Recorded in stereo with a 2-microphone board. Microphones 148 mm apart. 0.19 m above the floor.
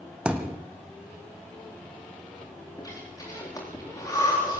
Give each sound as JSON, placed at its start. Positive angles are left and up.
{"t": 0.2, "sound": "a thud", "side_deg": -5, "distance_m": 2.5}
{"t": 2.8, "sound": "breathing", "side_deg": 25, "distance_m": 9.5}